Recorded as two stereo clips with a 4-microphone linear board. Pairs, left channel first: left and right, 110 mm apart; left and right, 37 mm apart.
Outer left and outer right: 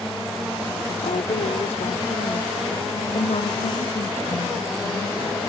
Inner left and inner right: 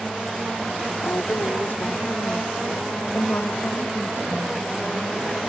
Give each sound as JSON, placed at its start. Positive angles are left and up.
{"t": 1.0, "sound": "a woman speaking", "side_deg": 90}